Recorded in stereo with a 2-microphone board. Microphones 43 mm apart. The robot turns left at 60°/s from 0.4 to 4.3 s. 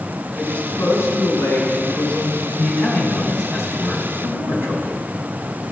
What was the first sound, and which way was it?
A woman speaking, 135° left.